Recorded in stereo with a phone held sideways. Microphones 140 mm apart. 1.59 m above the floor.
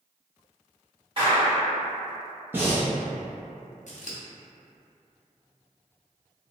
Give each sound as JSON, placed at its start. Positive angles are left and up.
{"t": 1.2, "sound": "a clap", "side_deg": -40, "distance_m": 1.5}
{"t": 2.5, "sound": "breathing", "side_deg": -15, "distance_m": 0.6}
{"t": 3.9, "sound": "scissors", "side_deg": 60, "distance_m": 0.5}